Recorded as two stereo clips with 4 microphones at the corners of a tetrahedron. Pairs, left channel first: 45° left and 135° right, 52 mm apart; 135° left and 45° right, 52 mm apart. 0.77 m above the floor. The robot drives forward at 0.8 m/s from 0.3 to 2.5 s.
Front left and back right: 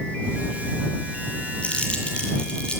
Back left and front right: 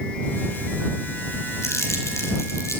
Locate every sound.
1.6 s crumpling: 110° left, 8.5 m; by 2.8 s 115° left, 9 m